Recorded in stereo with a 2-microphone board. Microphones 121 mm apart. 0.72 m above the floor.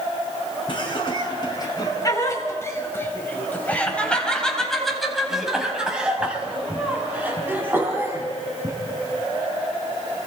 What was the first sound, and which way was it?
Laughter, 45° left (ahead or behind).